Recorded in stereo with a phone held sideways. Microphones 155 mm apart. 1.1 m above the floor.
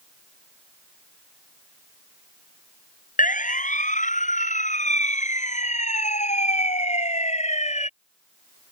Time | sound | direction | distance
3.2 | a siren | 55° left (ahead or behind) | ?